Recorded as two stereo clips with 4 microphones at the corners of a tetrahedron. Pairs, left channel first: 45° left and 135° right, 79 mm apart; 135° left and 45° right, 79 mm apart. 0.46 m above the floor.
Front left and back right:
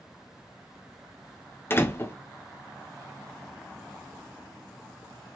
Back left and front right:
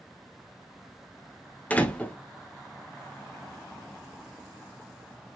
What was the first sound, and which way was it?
A door slam, 80° left.